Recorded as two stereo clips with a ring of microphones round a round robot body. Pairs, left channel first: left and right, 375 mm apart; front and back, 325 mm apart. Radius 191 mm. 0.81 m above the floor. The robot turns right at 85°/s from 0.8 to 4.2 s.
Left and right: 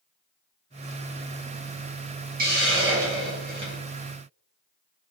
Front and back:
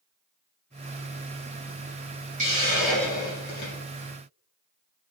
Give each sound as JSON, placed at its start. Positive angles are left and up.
{"t": 2.4, "sound": "a hiss", "azimuth_deg": -135, "distance_m": 0.7}